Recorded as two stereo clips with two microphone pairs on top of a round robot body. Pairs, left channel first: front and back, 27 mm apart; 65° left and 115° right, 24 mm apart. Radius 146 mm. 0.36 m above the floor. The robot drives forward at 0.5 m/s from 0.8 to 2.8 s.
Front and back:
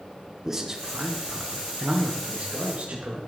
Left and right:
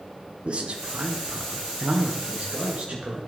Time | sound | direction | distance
0.5 | a man speaking | 110° right | 1.1 m